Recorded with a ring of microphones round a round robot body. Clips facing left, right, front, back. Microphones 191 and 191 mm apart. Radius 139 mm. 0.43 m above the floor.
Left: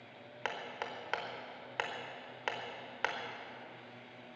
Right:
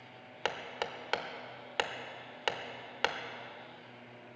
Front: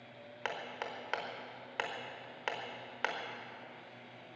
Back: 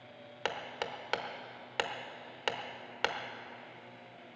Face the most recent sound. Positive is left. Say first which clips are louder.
# right 4 dB, back 3 dB
turn(degrees=-135)